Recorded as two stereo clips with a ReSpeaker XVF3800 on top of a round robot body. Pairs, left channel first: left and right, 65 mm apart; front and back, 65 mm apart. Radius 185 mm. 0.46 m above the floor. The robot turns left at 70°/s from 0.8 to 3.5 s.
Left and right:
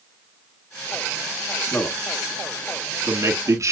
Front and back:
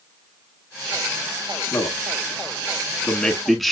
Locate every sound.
1.6 s a man speaking: 40° left, 1.7 m; by 3.7 s 90° right, 1.7 m